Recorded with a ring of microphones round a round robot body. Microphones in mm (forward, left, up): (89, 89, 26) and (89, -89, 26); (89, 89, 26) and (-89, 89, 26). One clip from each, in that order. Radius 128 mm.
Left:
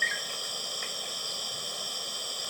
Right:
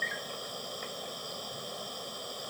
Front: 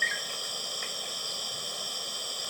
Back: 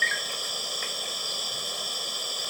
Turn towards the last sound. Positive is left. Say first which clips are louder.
# left 5 dB, back 4 dB
turn(degrees=125)